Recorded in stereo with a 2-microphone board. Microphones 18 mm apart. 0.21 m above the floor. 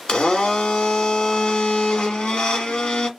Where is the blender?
50° left (ahead or behind), 1.2 m.